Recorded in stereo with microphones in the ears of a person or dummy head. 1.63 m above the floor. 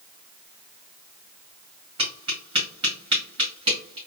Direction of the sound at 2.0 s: 25° right (ahead or behind).